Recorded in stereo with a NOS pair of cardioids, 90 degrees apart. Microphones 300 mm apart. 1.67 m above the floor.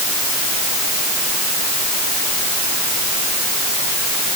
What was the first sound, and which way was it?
Only background noise.